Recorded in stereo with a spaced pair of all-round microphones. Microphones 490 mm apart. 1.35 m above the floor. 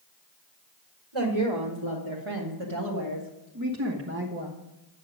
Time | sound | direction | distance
1.1 | a woman speaking | 75° right (ahead or behind) | 2 m